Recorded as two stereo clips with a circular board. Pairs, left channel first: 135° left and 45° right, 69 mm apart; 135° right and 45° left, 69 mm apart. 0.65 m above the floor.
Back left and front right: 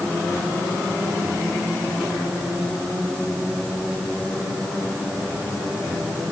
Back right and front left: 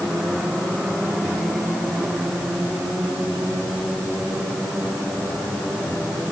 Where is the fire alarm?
No fire alarm in this recording.